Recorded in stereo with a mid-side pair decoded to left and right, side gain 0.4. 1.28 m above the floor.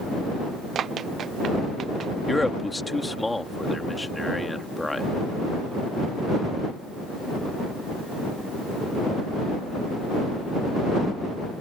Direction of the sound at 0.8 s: 60° right.